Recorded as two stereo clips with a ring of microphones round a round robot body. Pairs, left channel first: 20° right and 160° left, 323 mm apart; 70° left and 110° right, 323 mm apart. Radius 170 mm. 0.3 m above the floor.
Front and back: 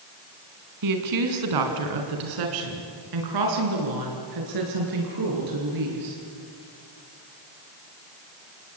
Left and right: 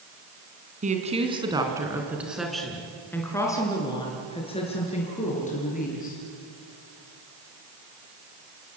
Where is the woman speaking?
Straight behind, 3.5 m; by 6.2 s 135° left, 7 m.